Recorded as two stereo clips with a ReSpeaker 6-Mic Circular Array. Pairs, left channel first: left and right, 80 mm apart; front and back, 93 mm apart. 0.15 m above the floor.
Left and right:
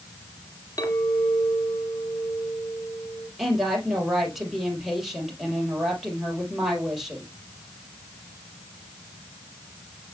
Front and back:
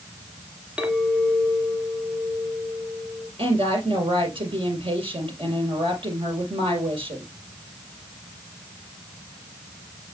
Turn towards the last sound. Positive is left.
turn(degrees=-175)